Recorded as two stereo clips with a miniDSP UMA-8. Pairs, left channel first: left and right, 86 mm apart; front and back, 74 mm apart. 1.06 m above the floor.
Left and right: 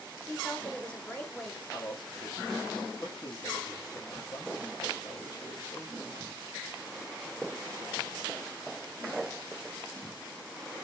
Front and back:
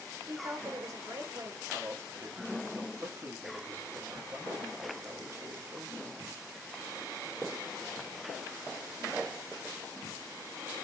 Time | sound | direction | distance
0.3 | a woman speaking | 155° left | 1.1 m
1.7 | a man speaking | 125° left | 1.4 m